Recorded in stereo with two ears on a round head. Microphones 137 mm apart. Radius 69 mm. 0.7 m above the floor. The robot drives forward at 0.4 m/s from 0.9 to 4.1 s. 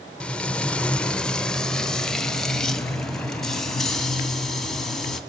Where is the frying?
5° left (ahead or behind), 0.5 m; by 5.2 s centre (ahead or behind), 1.8 m.